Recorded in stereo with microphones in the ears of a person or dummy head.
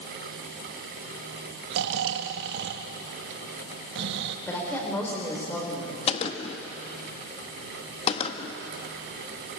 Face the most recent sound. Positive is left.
turn(degrees=40)  # may be behind; listen again after turning